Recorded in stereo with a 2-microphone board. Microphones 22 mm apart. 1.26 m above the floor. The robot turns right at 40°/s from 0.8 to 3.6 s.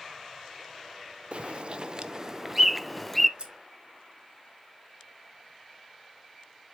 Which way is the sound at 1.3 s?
65° right (ahead or behind).